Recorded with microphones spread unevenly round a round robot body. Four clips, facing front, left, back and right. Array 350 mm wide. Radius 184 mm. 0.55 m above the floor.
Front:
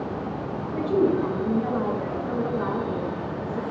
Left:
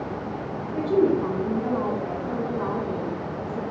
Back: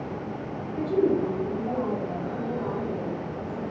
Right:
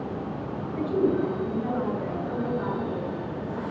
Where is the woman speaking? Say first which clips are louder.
Left 3 dB, front 1 dB; 55° left, 5.5 m.